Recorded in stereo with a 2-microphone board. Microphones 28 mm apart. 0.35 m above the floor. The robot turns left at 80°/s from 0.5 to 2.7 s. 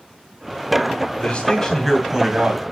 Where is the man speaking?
55° left, 2.5 m; by 2.6 s 60° right, 2.5 m.